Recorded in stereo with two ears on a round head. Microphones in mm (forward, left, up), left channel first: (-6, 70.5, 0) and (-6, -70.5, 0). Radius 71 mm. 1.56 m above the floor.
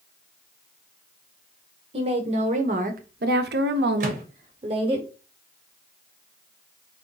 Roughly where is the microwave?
Right.